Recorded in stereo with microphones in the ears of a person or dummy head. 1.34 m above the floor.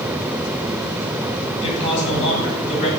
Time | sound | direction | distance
1.6 | a man speaking | 30° left (ahead or behind) | 3 m